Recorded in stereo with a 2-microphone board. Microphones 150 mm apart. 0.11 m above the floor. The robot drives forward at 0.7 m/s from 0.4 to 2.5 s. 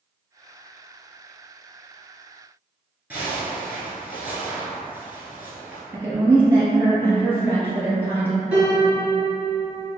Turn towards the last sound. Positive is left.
turn(degrees=-10)  # may be behind; listen again after turning